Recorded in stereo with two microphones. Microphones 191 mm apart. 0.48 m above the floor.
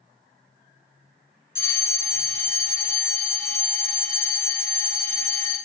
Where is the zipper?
I don't hear a zipper.